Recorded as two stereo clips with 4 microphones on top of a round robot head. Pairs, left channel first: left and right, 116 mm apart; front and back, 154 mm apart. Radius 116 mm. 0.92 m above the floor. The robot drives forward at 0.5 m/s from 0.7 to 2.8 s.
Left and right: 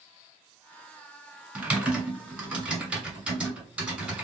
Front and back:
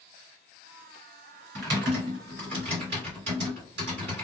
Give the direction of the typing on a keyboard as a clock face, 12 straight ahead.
5 o'clock.